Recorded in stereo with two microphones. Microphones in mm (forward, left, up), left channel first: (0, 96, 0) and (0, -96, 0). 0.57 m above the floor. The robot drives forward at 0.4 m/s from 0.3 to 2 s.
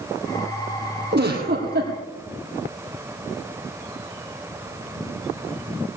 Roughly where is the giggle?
Right.